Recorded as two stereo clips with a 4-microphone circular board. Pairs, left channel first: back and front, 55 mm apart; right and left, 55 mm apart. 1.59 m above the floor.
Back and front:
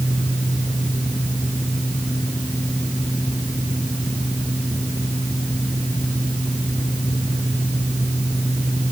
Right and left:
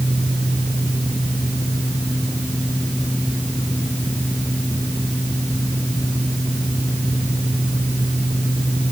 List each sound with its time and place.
Only background noise.